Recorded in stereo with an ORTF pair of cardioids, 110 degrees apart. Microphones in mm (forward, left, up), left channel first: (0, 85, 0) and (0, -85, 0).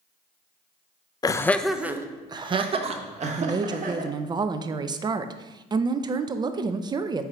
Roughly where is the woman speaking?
Ahead right.